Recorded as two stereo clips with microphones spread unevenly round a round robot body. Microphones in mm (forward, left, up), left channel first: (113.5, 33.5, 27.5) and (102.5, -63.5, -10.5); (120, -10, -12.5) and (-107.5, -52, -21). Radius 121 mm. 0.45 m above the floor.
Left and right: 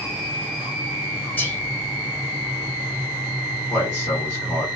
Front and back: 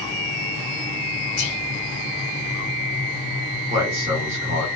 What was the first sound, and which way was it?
Whispering, 5° right.